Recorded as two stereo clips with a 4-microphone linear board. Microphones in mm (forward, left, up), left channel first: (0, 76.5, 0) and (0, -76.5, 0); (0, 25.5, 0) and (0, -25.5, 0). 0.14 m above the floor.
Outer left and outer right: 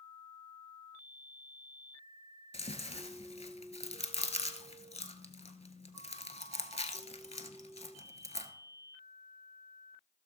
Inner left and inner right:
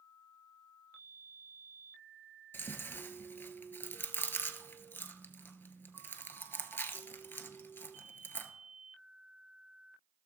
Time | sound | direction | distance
2.5 | chewing | 45° left (ahead or behind) | 0.8 m